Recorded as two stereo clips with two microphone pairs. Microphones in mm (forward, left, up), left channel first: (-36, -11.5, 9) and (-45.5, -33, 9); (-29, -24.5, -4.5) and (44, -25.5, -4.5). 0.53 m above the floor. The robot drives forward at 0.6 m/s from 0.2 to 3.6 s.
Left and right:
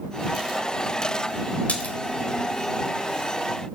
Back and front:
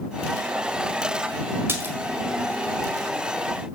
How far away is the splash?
About 1.6 m.